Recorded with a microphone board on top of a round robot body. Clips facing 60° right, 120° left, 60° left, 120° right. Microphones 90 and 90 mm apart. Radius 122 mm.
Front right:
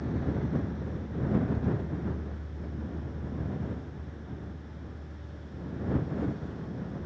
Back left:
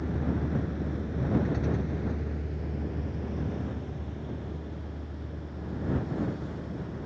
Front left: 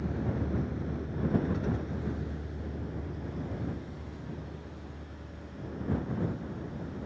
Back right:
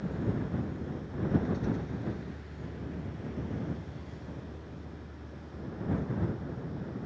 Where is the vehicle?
65° left; by 7.1 s 160° left.